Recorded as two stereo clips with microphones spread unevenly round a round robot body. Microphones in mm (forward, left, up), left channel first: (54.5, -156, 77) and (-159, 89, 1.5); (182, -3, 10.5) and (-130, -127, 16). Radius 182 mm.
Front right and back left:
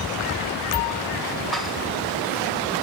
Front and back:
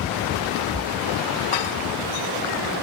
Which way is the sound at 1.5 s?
45° left.